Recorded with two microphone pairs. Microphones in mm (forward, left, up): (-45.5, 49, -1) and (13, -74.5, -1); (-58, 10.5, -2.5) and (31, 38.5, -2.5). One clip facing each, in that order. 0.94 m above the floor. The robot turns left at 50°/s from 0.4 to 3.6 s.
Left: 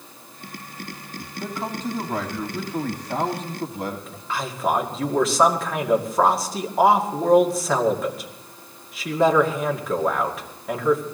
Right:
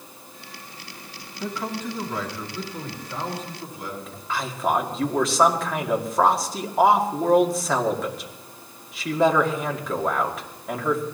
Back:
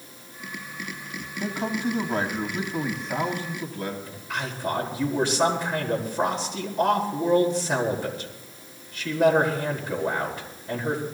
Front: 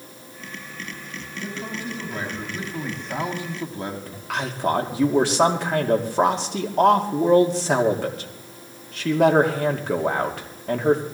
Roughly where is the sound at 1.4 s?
Behind.